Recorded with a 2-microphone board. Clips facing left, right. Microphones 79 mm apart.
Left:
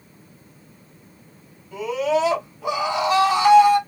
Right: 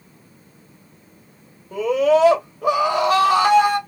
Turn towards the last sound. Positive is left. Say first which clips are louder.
# right 5 dB
turn(degrees=-50)  # may be behind; listen again after turning